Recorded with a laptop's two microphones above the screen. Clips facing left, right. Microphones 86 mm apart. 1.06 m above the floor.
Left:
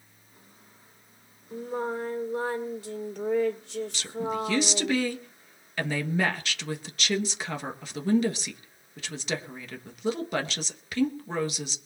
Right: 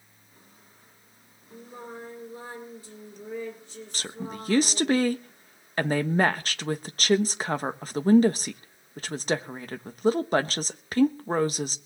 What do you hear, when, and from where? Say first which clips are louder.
1.5 s singing: left 10 dB; 80° left, 2 m
3.9 s a woman speaking: left 4 dB; 40° right (ahead or behind), 1.1 m